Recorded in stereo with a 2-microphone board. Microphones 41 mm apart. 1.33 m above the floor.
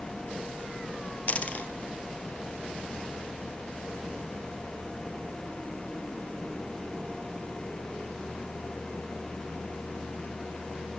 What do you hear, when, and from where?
1.3 s a dropped coin: 35° left (ahead or behind), 1.9 m